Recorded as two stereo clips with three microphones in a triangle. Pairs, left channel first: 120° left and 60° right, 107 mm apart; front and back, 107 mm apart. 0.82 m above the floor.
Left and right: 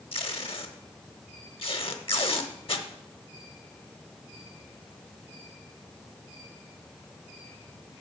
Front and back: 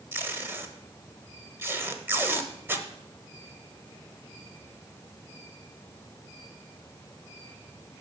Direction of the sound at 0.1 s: 115° left.